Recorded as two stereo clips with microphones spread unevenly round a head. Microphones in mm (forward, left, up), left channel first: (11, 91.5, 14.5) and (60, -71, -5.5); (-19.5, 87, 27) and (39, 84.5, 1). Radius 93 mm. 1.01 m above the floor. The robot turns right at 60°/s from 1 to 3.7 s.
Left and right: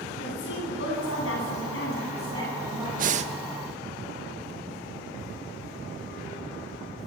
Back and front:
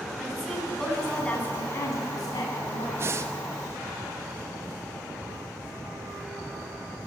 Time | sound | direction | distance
0.2 | a woman speaking | 95° left | 9 m
3.0 | breathing | 45° right | 0.9 m